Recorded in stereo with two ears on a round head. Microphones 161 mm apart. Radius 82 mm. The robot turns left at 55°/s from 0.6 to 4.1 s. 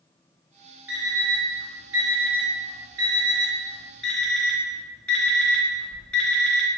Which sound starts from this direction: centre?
An alarm clock, at 0.9 s.